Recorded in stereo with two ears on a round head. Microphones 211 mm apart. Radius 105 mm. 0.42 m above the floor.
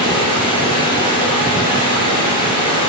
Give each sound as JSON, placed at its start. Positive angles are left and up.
{"t": 0.0, "sound": "running water", "side_deg": 20, "distance_m": 4.0}